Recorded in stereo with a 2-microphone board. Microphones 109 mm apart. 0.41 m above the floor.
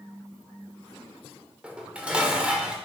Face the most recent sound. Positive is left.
turn(degrees=-10)  # may be behind; listen again after turning